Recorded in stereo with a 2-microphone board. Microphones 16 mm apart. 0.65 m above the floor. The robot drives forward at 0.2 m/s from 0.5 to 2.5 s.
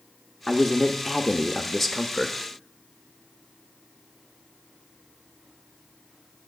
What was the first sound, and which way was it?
A man speaking, 20° left (ahead or behind).